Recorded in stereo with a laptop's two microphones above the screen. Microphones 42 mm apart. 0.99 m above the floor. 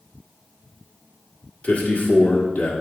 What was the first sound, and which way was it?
A man speaking, 30° left (ahead or behind).